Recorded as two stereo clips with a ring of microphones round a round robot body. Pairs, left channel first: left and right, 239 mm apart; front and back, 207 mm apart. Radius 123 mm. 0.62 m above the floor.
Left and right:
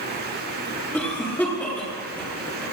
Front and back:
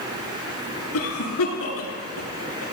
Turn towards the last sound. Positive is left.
turn(degrees=5)